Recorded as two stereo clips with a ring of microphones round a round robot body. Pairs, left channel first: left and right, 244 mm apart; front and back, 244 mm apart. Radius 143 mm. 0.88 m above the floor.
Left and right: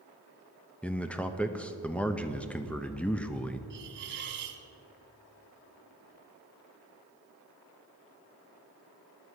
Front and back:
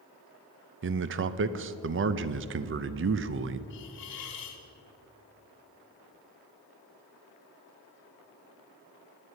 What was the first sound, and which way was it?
A man speaking, 175° left.